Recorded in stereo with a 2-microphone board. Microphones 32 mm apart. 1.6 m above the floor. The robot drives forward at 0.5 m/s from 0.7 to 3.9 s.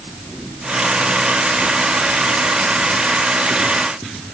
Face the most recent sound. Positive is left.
No sound to turn to.